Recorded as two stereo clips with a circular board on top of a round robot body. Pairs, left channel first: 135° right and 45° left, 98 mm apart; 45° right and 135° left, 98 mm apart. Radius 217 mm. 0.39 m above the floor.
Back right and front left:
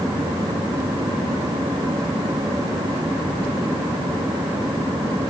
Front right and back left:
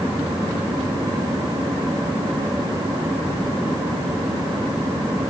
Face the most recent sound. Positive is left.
No sound to turn to.